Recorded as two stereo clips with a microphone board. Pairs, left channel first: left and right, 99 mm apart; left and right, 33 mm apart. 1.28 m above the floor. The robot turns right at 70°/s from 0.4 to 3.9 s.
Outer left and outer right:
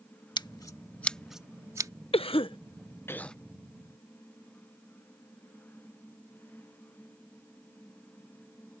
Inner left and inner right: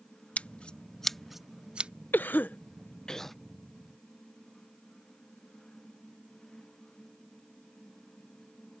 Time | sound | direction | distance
0.4 | scissors | 45° left (ahead or behind) | ?
2.1 | a cough | 70° left (ahead or behind) | ?